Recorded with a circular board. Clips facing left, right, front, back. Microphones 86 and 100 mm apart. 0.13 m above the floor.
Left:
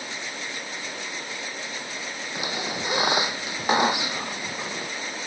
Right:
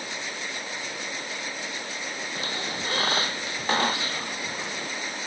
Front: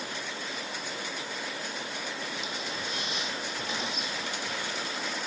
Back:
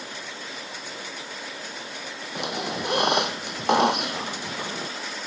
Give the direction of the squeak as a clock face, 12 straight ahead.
7 o'clock.